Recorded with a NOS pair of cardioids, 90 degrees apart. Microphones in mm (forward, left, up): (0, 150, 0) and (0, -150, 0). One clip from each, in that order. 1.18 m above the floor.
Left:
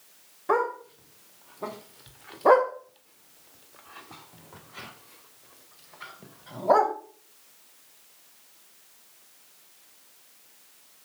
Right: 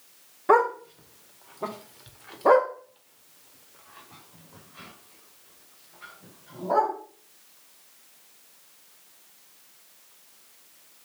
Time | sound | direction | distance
0.5 | a dog barking | 30° right | 2.5 m